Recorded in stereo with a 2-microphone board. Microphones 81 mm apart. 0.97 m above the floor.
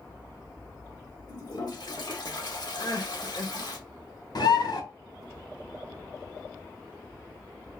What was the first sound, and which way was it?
A toilet flushing, 60° left (ahead or behind).